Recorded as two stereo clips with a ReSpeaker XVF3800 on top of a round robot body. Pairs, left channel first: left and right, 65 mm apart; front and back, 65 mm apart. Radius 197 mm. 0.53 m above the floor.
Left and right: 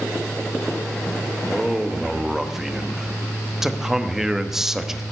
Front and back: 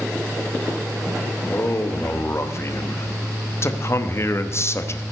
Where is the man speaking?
10° right, 1.2 m.